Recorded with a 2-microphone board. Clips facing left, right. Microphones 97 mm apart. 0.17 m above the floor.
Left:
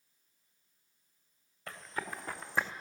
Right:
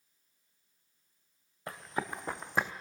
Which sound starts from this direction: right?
Running footsteps, at 1.7 s.